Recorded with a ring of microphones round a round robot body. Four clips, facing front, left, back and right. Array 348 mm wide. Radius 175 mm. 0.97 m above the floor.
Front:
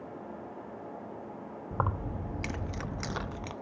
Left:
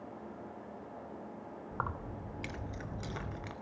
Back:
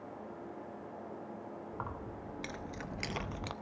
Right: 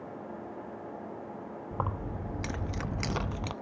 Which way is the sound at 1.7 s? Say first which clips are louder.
Right 4 dB, front 12 dB; 20° right.